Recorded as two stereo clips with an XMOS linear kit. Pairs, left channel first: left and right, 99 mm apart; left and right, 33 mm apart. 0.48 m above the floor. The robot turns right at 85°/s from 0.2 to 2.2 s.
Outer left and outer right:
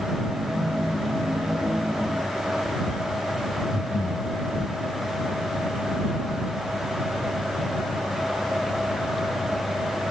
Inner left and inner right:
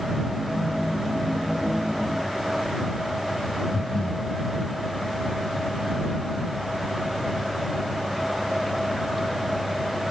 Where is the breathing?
35° left (ahead or behind).